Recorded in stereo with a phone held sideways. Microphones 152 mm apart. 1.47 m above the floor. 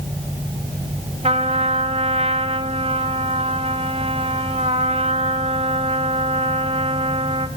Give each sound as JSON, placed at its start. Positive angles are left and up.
{"t": 1.2, "sound": "a trumpet", "side_deg": -40, "distance_m": 1.8}